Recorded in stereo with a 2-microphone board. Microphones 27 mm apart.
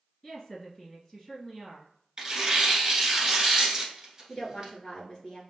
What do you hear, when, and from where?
0.2 s a woman speaking: 20° left (ahead or behind), 1.7 m
2.2 s tearing paper: 25° right (ahead or behind), 1.4 m
4.3 s a woman speaking: 30° left (ahead or behind), 2.0 m